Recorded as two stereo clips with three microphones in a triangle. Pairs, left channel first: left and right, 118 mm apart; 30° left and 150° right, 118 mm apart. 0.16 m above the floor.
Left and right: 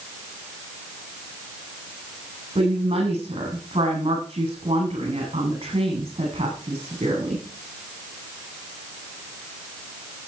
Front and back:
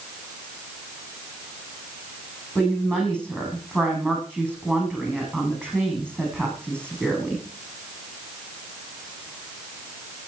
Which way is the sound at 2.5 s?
50° right.